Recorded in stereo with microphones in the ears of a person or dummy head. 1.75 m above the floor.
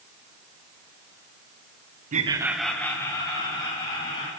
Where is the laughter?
45° right (ahead or behind), 0.7 m; by 4.3 s 25° left (ahead or behind), 3.5 m.